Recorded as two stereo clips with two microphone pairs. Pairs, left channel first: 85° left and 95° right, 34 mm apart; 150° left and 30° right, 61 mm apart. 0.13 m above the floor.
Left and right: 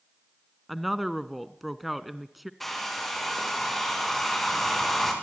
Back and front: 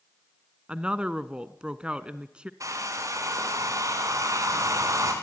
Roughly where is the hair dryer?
Ahead.